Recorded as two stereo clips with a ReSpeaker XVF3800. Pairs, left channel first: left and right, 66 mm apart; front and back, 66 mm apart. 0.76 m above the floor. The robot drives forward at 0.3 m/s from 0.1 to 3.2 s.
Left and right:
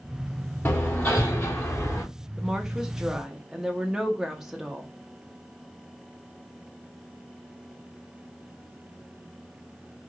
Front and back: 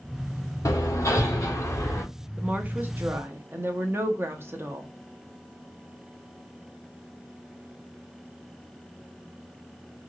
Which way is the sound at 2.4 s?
155° right.